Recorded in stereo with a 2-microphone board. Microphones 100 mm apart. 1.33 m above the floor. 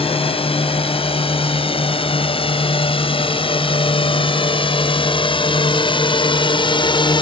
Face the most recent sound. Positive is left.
turn(degrees=50)  # may be behind; listen again after turning